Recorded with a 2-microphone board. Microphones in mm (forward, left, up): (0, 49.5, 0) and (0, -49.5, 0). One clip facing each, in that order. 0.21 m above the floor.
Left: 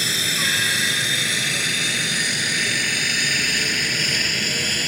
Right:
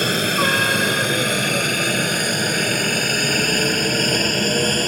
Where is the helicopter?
55° right (ahead or behind); by 4.9 s 45° right (ahead or behind).